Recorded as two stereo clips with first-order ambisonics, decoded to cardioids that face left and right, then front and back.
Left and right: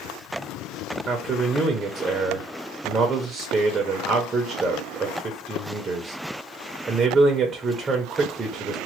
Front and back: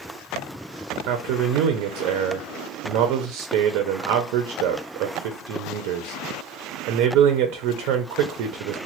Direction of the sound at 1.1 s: 165° right.